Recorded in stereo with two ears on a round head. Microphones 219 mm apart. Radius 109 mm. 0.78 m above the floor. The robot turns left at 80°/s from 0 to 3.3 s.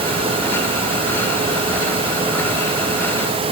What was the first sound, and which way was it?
Only background noise.